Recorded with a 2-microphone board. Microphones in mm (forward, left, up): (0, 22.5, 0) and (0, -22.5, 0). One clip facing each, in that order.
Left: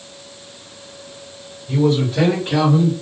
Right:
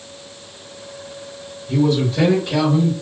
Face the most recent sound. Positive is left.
turn(degrees=50)  # may be behind; listen again after turning